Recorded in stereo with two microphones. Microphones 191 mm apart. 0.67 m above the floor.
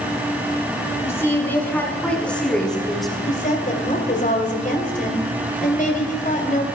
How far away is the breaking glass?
I don't hear breaking glass.